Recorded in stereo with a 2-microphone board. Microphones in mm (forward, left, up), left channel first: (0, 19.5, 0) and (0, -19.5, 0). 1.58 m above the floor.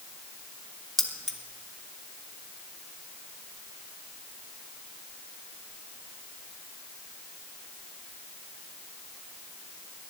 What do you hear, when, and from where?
1.0 s keys jangling: 5° left (ahead or behind), 1.3 m